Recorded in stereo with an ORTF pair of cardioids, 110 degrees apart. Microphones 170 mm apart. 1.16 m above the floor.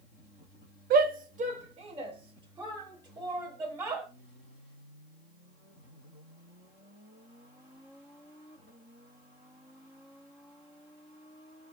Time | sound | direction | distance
0.9 | a shout | 60° right | 0.8 m